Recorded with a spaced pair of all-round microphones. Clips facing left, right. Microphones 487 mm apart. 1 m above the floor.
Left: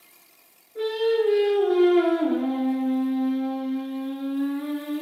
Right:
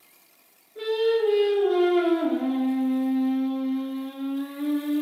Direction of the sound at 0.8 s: 65° left (ahead or behind).